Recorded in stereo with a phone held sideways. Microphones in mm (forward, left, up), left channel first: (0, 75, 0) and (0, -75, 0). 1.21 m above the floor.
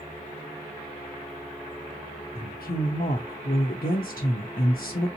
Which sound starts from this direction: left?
A woman speaking, at 2.4 s.